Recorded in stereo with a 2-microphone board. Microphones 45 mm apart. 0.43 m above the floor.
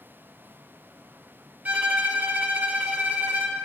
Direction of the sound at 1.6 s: 40° right (ahead or behind).